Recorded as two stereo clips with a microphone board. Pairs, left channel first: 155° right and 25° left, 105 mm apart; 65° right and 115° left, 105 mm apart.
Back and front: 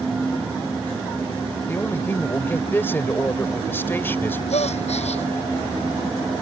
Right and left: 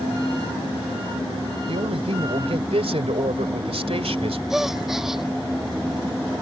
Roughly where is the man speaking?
Behind left.